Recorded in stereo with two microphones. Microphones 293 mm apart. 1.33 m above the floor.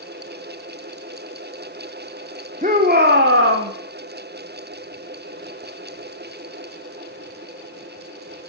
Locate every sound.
2.6 s a shout: 25° right (ahead or behind), 1.3 m; by 3.7 s 50° right (ahead or behind), 1.1 m